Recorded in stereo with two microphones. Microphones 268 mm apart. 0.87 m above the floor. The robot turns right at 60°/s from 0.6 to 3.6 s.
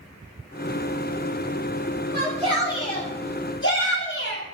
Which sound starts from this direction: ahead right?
A shout, at 2.1 s.